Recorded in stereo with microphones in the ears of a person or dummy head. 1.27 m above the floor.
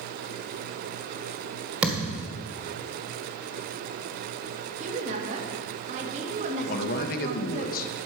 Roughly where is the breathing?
No breathing in this recording.